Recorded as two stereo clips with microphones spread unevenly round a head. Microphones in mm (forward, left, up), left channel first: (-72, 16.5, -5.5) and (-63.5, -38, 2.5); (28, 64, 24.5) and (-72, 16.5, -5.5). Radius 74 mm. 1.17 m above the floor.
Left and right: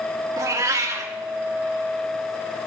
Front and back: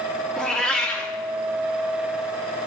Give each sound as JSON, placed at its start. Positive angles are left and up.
{"t": 0.4, "sound": "a cat meowing", "azimuth_deg": -55, "distance_m": 1.2}